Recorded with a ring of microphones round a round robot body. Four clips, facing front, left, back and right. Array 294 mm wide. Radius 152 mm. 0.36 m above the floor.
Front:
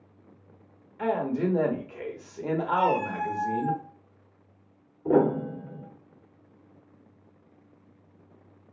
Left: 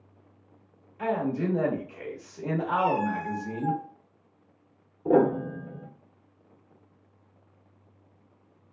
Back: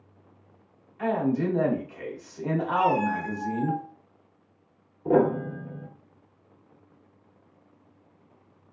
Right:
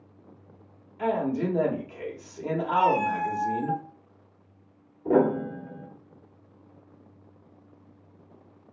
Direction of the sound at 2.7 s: 55° right.